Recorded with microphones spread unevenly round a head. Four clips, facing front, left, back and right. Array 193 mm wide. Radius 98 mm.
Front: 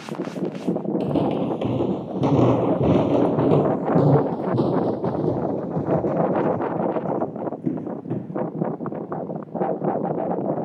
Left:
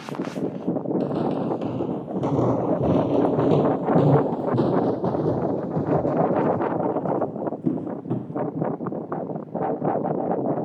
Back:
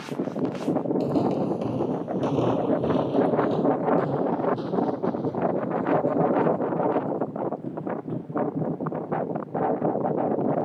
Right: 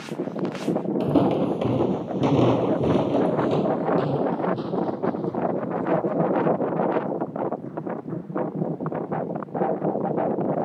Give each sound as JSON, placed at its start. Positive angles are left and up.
{"t": 1.0, "sound": "footsteps", "azimuth_deg": -80}